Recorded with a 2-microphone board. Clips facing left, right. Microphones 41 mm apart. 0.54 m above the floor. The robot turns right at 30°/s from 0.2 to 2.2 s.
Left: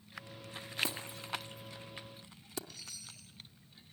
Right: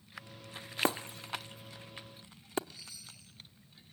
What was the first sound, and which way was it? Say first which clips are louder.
Breaking glass: right 7 dB; 50° right (ahead or behind).